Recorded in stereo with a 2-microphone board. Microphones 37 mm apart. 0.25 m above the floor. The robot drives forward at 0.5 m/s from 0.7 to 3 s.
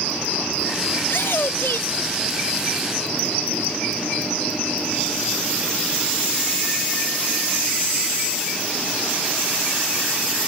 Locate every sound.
1.0 s a shout: 70° left (ahead or behind); by 2.9 s 75° left (ahead or behind)